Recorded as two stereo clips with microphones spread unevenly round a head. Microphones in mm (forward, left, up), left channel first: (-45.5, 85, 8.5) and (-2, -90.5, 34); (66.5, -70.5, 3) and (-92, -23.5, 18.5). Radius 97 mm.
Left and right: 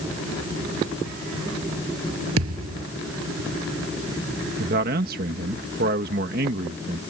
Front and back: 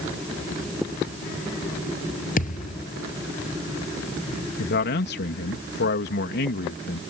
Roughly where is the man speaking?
Ahead right.